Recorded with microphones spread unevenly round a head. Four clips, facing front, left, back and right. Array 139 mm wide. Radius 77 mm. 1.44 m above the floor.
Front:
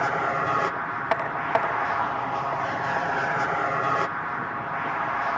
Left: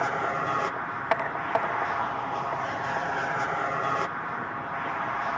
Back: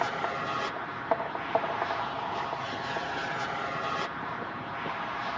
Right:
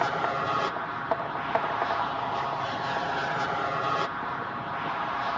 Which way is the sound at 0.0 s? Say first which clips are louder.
Even, front 6 dB; straight ahead.